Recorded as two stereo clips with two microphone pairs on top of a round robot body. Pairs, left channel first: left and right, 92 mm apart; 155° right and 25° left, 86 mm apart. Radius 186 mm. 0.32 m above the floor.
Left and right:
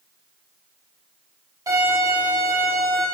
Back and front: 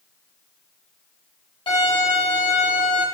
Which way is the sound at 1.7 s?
140° right.